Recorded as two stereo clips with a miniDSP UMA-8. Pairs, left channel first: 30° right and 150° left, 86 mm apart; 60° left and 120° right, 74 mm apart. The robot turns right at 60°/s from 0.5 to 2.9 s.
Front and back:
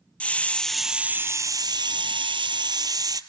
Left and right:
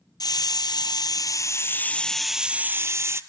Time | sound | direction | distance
0.2 | a hiss | 45° left | 0.6 m